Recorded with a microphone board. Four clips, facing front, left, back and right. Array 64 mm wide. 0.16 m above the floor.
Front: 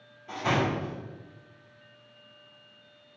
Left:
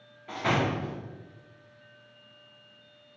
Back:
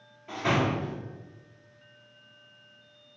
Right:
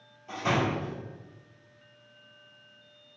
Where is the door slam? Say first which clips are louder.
Even, back 1 dB; 100° left, 1.8 m.